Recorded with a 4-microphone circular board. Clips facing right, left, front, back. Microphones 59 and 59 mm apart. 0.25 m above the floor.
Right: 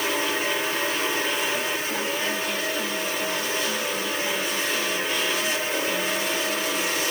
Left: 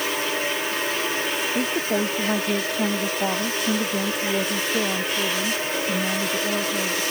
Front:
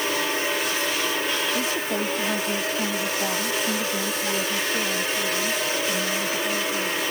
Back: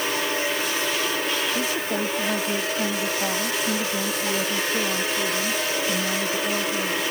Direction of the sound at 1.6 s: 90° left.